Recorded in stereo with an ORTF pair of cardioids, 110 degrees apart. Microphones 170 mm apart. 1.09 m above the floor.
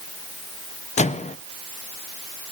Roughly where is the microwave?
Ahead left.